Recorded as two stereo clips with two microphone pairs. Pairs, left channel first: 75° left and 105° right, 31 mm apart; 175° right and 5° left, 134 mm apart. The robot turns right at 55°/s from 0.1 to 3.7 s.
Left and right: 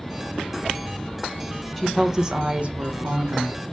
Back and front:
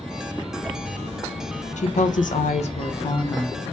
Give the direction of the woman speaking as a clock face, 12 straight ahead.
7 o'clock.